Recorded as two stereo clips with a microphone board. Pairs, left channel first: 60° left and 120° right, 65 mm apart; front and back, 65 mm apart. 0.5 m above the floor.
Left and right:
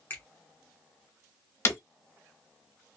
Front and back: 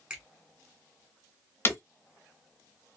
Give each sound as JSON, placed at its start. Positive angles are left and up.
{"t": 0.1, "sound": "a finger snap", "azimuth_deg": 110, "distance_m": 1.2}
{"t": 1.6, "sound": "breaking glass", "azimuth_deg": 35, "distance_m": 0.6}